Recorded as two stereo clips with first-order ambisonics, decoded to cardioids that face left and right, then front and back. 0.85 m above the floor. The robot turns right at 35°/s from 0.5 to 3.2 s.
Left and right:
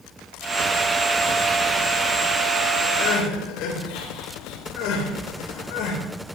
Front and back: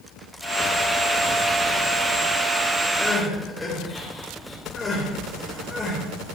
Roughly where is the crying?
Left.